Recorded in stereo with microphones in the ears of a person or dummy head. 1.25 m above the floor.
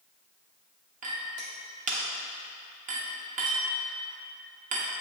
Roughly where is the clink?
Right.